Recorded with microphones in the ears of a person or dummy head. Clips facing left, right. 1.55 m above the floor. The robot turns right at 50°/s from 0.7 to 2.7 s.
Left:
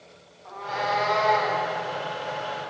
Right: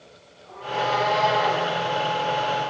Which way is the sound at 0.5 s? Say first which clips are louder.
Right 3 dB; 90° left.